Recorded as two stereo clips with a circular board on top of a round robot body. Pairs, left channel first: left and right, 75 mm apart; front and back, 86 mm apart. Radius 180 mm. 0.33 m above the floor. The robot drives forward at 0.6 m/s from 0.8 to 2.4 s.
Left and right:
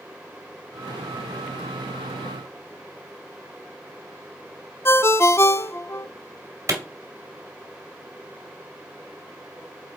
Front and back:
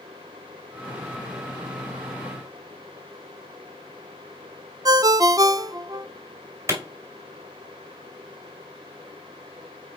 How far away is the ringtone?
About 0.5 m.